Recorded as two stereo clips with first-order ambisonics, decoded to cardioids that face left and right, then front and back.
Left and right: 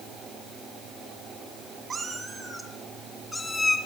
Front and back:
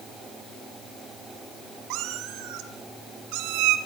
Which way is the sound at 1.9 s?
160° right.